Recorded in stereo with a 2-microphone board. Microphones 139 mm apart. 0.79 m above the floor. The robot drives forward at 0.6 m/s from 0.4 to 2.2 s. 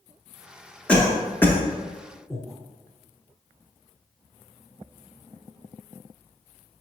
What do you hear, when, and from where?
0.9 s a cough: 10° left (ahead or behind), 0.8 m; by 1.6 s 15° left (ahead or behind), 0.5 m
2.3 s breathing: 5° right (ahead or behind), 0.5 m